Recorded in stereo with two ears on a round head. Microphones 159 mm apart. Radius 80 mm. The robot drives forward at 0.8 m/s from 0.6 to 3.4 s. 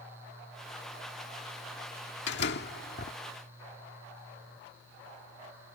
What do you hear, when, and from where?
2.3 s a door slam: 70° left (ahead or behind); by 3.1 s 55° left (ahead or behind)